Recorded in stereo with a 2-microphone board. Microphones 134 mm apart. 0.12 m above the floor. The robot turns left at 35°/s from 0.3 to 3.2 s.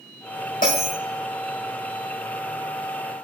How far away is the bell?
About 4 m.